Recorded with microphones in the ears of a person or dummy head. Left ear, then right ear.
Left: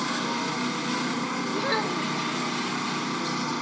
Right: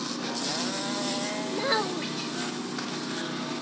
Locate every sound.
0.0 s a motorcycle: 70° left (ahead or behind)
1.5 s a child speaking: 10° right (ahead or behind)